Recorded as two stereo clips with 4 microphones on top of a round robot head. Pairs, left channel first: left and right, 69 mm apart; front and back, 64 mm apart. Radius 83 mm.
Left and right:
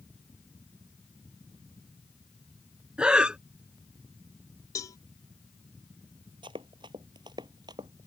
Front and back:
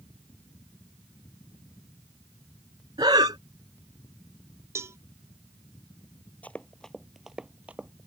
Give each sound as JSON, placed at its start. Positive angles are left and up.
{"t": 3.0, "sound": "breathing", "azimuth_deg": -160}
{"t": 4.8, "sound": "a cowbell", "azimuth_deg": 130}
{"t": 6.4, "sound": "running footsteps", "azimuth_deg": -80}